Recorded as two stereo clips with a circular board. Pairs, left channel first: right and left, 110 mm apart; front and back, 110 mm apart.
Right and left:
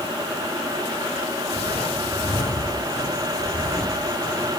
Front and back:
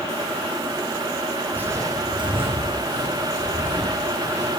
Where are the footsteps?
105° right, 0.8 m; by 4.5 s 165° right, 2.5 m.